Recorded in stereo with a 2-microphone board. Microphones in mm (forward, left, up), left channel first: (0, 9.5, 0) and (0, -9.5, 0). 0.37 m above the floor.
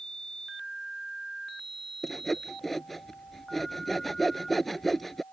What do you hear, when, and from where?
2.0 s sawing: centre (ahead or behind)